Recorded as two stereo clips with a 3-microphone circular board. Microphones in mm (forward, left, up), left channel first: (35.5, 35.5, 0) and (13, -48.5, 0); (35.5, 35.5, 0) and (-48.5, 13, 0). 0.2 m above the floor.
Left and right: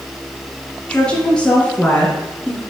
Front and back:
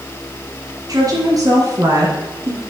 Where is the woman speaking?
155° left, 3 m; by 2.6 s 150° left, 2 m.